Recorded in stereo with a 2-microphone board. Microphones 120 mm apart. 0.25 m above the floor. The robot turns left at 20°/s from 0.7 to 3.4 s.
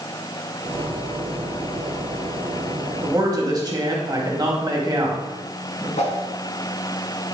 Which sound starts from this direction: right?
A man speaking, at 3.0 s.